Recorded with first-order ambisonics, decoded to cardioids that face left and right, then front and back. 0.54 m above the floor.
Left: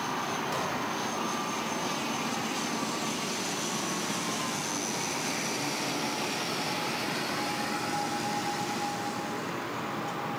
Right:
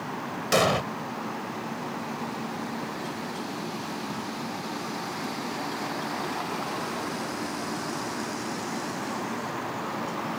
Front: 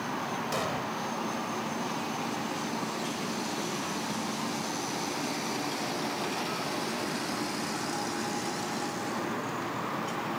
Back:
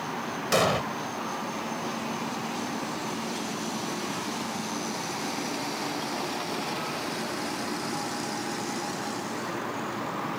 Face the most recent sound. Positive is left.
turn(degrees=-125)